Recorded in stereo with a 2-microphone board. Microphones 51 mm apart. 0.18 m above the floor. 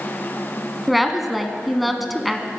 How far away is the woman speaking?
About 1.3 m.